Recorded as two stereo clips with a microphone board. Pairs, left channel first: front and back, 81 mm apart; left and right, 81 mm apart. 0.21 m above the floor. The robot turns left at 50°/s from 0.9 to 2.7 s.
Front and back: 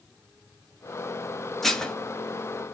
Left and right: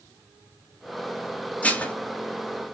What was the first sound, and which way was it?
Dishes clattering, 80° left.